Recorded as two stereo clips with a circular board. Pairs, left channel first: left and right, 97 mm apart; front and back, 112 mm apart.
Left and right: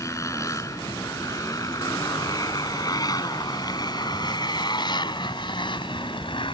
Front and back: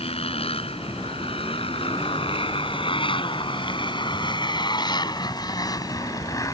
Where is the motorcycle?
30° left; by 6.5 s 60° left.